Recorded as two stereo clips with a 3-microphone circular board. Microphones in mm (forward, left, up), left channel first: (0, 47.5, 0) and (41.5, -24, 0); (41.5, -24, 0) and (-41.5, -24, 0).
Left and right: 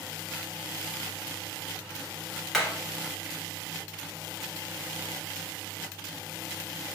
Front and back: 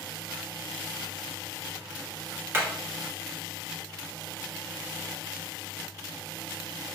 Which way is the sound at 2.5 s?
150° right.